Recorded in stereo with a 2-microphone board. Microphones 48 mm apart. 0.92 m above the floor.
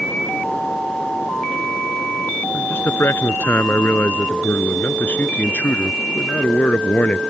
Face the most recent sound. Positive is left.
turn(degrees=35)  # may be behind; listen again after turning